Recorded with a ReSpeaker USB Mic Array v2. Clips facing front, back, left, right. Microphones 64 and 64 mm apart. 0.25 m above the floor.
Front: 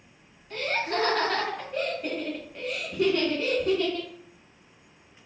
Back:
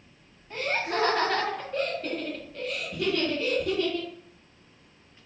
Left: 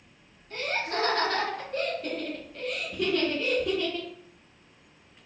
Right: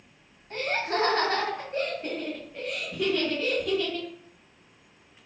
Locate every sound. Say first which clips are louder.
0.5 s laughter: even, right 2 dB; 110° right, 1.5 m; by 4.1 s 10° left, 1.4 m